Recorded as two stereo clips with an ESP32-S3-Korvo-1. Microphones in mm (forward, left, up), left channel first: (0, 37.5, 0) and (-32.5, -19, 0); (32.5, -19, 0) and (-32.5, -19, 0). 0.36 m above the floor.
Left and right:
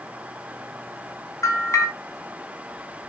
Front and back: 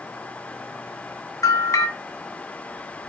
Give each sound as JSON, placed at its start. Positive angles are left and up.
{"t": 1.4, "sound": "a bell", "azimuth_deg": 25, "distance_m": 3.0}